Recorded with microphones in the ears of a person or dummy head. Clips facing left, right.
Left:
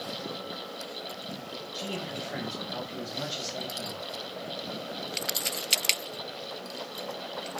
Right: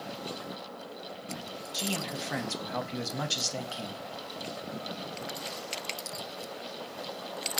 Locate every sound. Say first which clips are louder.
1.7 s a man speaking: right 1 dB; 80° right, 0.6 m